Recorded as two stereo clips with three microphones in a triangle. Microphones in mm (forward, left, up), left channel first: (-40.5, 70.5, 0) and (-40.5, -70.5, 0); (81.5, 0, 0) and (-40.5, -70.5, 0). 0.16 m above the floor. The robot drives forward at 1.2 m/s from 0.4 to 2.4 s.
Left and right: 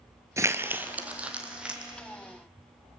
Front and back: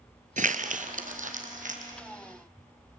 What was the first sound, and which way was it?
Crumpling, 160° right.